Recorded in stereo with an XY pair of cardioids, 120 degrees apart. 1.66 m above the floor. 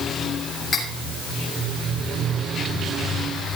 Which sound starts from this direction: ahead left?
Cutlery clinking, at 0.7 s.